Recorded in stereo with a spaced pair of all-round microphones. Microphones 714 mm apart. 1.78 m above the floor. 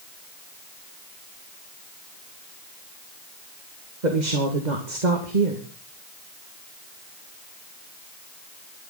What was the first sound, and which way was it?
A woman speaking, 75° right (ahead or behind).